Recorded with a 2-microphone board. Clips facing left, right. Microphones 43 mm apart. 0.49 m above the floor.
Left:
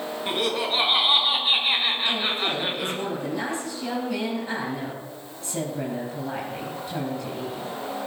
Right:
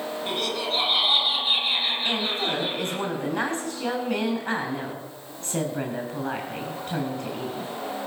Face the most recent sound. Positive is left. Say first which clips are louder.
# left 1 dB
turn(degrees=-50)  # may be behind; listen again after turning